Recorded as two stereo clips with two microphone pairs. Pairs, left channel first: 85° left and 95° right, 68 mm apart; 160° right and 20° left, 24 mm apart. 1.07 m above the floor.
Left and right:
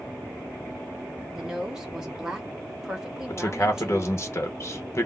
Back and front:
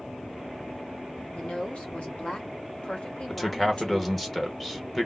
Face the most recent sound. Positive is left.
turn(degrees=120)